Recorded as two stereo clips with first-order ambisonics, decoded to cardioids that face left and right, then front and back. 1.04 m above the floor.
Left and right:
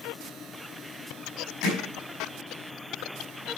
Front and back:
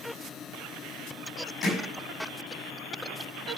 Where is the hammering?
60° left, 4.5 m.